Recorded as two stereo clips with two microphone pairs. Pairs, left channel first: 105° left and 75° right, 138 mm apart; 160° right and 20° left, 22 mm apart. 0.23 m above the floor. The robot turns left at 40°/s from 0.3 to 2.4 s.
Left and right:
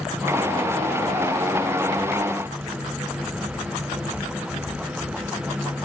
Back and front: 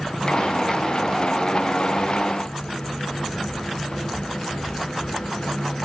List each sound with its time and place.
Only background noise.